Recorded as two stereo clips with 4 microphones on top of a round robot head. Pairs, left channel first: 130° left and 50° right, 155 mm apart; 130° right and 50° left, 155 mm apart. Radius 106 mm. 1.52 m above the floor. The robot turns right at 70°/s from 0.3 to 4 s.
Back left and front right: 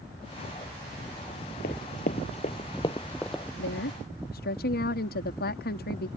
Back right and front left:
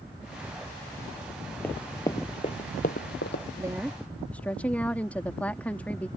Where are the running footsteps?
150° left; by 3.4 s 135° right.